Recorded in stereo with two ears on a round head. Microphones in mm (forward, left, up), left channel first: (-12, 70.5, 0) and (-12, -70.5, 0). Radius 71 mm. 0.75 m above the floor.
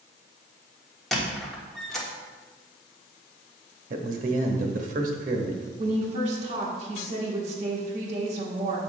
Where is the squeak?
Centre (ahead or behind), 1.2 m.